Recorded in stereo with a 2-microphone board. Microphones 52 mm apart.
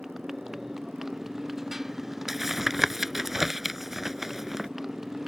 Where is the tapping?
5° right (ahead or behind).